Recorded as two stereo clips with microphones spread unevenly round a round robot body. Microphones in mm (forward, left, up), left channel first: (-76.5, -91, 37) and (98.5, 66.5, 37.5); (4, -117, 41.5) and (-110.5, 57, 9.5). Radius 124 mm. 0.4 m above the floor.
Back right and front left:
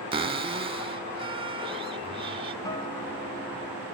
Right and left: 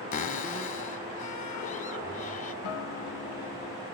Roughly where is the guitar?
Ahead right.